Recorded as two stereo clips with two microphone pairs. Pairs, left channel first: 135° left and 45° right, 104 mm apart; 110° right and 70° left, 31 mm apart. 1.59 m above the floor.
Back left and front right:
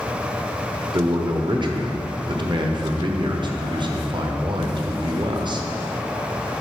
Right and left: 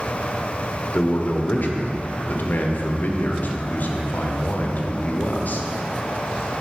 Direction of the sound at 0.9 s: 90° right.